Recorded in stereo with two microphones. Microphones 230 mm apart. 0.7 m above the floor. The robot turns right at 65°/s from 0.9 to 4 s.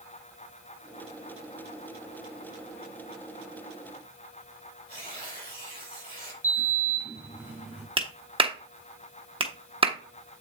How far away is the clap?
About 0.9 m.